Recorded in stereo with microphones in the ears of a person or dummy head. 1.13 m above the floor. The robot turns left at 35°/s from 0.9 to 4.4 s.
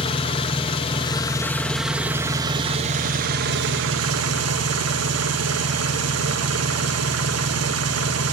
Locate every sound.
0.0 s an engine running: 30° left, 1.1 m; by 8.3 s 90° right, 1.1 m